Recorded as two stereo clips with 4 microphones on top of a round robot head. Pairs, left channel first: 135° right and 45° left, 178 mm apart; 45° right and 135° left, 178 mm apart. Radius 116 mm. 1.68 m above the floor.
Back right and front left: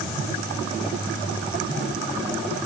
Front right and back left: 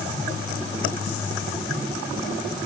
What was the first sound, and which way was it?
Only background noise.